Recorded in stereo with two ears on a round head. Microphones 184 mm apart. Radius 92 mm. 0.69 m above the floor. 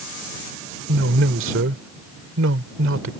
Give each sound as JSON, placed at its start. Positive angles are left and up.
{"t": 0.9, "sound": "a man speaking", "side_deg": -65}